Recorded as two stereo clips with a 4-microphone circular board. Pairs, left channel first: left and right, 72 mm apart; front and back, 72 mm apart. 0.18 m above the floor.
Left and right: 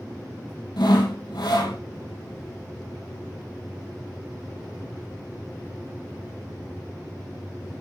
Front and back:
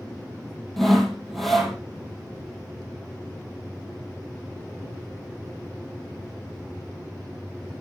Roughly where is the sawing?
Left.